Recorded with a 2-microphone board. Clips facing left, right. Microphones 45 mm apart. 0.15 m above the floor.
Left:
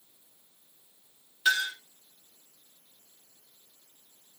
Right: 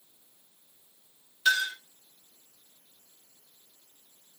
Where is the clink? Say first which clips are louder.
Right 1 dB; 10° left (ahead or behind), 1.4 m.